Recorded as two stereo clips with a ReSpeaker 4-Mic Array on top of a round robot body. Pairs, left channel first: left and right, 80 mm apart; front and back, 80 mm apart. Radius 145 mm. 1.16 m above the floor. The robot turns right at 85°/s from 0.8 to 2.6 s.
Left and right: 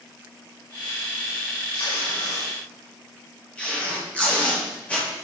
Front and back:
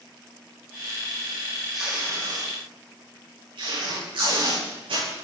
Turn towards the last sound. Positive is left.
turn(degrees=165)